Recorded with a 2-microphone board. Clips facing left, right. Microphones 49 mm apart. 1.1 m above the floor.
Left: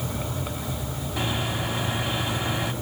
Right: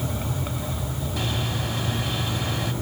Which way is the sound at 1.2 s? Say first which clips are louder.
Left 2 dB; 25° left (ahead or behind).